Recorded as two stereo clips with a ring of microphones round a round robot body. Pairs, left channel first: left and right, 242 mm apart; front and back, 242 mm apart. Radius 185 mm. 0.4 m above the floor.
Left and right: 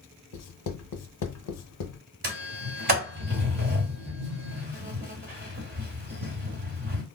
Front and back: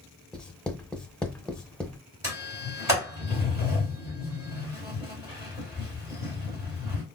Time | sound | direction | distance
0.3 | writing | 85° left | 0.7 m
2.2 | a sliding door | 105° right | 1.6 m